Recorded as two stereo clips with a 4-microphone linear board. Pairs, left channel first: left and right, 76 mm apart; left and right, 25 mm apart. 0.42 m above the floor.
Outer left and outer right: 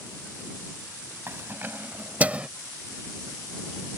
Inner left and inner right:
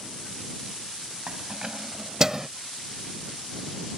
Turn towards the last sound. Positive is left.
turn(degrees=-15)  # may be behind; listen again after turning